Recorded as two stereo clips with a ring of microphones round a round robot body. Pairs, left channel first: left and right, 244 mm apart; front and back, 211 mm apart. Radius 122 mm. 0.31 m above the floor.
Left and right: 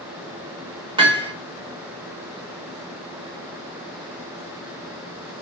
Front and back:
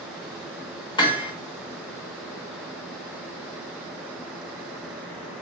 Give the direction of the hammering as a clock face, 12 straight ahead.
1 o'clock.